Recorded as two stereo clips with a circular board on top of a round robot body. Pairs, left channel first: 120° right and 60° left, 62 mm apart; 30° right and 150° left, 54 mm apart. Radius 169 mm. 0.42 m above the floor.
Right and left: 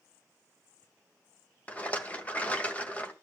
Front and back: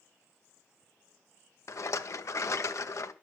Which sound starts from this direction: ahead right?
A rattle, at 1.7 s.